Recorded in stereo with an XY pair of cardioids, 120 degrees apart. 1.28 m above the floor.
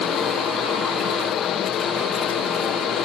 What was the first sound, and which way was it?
A fan, 65° left.